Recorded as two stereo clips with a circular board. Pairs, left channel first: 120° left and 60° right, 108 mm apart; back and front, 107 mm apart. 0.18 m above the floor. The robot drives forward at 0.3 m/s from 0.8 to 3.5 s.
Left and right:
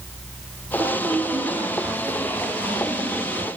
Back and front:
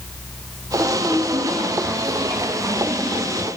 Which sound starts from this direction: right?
A woman speaking, at 0.8 s.